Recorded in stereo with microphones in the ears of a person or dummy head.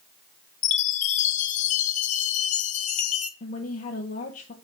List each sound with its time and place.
0.6 s a chime: 35° left (ahead or behind), 0.9 m
3.4 s a woman speaking: 35° left (ahead or behind), 1.1 m